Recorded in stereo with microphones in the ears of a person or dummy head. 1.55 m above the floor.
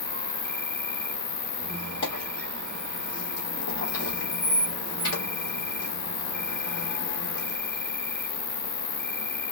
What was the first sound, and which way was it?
An insect, 50° left (ahead or behind).